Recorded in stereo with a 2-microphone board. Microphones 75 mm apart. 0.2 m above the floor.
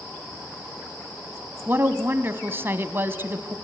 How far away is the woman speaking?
About 1.2 m.